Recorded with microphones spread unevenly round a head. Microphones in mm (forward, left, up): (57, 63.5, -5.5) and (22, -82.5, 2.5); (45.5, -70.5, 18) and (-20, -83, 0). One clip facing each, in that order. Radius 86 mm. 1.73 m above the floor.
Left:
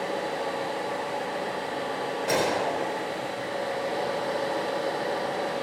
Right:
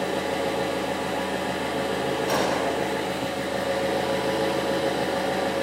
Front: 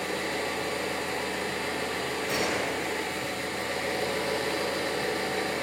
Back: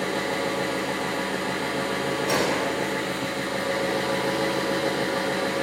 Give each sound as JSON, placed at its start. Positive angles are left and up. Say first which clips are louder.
{"t": 0.0, "sound": "an engine running", "louder": "right 4 dB, back 5 dB", "azimuth_deg": -150, "distance_m": 8.5}
{"t": 2.3, "sound": "a gunshot", "louder": "left 1 dB, back 5 dB", "azimuth_deg": 150, "distance_m": 3.0}